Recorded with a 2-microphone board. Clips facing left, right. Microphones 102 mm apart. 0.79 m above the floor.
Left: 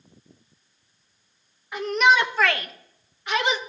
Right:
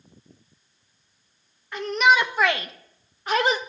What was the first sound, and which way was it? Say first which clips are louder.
A shout: even; 10° left (ahead or behind).